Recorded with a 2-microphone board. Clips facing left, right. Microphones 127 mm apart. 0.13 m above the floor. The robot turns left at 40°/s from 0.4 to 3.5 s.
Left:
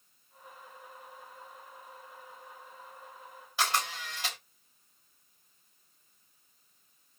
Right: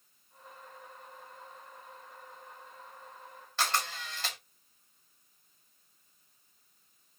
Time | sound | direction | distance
3.6 | a camera shutter | 10° left (ahead or behind) | 3 m